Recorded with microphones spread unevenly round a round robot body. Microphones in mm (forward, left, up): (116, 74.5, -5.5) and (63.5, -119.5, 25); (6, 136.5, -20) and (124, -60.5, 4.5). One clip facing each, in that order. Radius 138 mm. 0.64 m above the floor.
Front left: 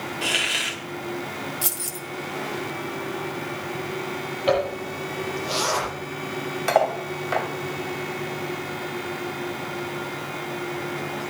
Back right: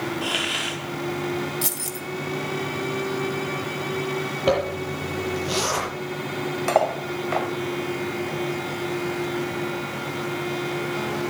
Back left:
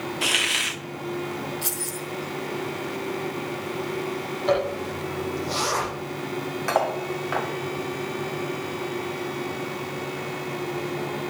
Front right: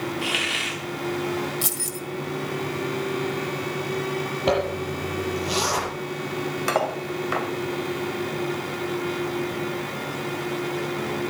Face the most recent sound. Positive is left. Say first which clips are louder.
# front left 1 dB, even
turn(degrees=-15)